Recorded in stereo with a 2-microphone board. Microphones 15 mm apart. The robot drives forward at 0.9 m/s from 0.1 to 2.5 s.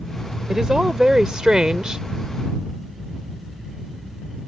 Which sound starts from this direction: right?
A woman speaking, at 0.5 s.